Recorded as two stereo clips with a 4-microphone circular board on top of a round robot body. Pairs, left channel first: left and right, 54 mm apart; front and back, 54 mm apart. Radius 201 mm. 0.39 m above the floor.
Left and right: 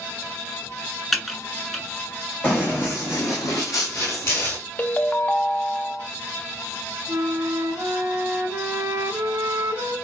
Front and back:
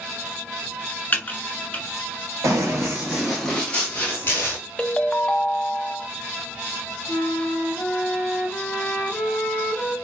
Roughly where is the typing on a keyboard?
Ahead.